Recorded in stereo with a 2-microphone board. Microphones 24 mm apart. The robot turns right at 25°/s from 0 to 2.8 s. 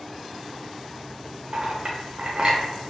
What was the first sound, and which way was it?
A clink, 55° right (ahead or behind).